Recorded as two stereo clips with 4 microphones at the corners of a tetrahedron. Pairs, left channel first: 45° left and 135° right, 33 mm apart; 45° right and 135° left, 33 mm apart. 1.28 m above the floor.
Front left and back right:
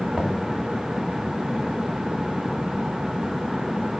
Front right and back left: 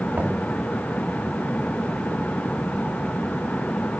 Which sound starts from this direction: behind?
Knocking, at 0.1 s.